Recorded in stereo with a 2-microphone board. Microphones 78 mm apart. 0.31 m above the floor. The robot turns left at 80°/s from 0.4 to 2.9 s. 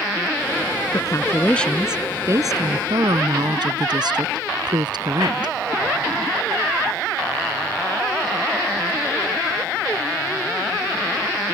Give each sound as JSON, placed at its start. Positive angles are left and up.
{"t": 0.9, "sound": "a woman speaking", "azimuth_deg": 65}